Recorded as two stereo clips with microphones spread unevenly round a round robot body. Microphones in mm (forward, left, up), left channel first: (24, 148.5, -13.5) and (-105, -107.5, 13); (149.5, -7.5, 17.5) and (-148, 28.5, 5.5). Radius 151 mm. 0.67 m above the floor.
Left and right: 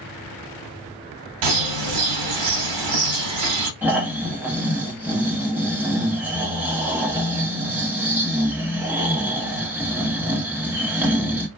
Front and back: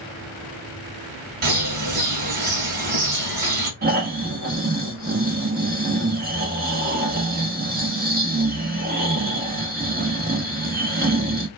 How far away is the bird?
About 0.9 m.